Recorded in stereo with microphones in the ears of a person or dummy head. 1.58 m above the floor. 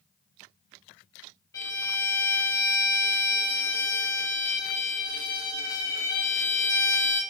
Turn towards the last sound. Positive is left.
turn(degrees=15)  # may be behind; listen again after turning